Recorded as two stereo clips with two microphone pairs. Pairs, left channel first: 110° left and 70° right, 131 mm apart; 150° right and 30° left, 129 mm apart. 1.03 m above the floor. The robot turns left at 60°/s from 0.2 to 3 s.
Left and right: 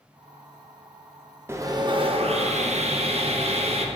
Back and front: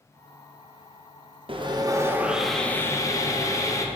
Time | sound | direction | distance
1.5 | sawing | straight ahead | 0.8 m